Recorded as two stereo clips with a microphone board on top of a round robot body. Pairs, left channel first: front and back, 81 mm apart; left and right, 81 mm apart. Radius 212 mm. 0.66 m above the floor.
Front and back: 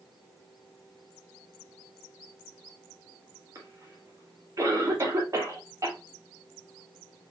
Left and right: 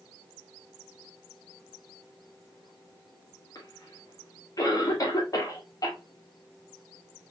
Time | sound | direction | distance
3.5 | a cough | 130° left | 2 m